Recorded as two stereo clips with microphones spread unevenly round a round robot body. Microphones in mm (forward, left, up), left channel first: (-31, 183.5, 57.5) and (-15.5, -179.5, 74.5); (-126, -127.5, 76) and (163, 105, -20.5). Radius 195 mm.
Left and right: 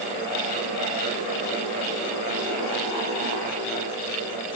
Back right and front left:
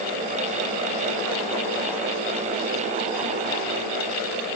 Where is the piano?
No piano in this recording.